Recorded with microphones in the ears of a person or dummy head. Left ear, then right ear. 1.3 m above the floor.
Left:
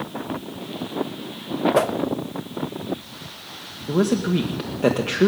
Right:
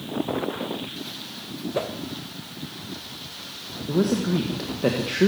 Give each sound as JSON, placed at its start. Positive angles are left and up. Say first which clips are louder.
{"t": 1.8, "sound": "a whoosh", "louder": "left 7 dB", "side_deg": 40, "distance_m": 0.6}
{"t": 3.9, "sound": "a man speaking", "louder": "left 2 dB", "side_deg": 20, "distance_m": 1.4}